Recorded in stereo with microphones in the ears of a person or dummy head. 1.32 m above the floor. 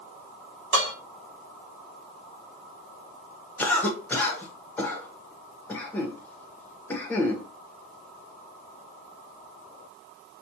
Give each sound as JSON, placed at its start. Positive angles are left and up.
{"t": 0.7, "sound": "dishes clattering", "side_deg": -45, "distance_m": 1.7}
{"t": 3.6, "sound": "a cough", "side_deg": 5, "distance_m": 1.2}